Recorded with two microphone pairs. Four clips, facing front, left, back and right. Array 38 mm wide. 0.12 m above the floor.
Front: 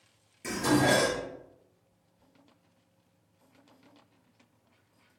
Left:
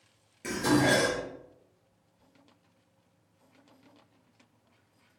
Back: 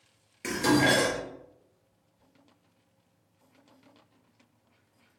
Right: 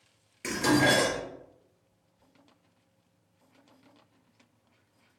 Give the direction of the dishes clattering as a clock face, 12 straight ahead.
4 o'clock.